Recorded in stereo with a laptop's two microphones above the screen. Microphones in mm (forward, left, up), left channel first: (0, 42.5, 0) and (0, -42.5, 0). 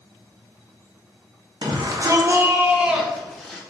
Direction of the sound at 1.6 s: 60° right (ahead or behind).